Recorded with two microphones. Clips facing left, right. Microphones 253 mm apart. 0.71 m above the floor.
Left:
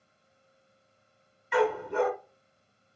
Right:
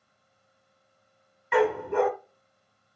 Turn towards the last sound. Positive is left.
turn(degrees=-60)  # may be behind; listen again after turning